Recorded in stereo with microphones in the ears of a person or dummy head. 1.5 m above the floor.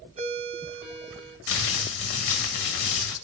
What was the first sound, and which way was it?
A ringtone, 30° right (ahead or behind).